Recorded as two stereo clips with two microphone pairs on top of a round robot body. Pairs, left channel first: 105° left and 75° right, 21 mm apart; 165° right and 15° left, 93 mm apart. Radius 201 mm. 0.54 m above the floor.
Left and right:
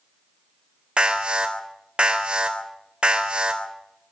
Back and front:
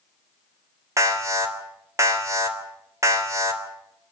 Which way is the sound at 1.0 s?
40° right.